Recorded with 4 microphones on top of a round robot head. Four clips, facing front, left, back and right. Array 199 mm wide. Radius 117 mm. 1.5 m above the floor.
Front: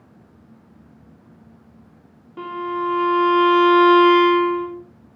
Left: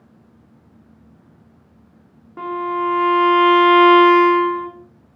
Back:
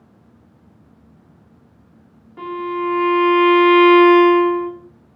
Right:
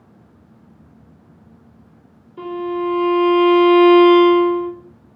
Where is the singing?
I don't hear singing.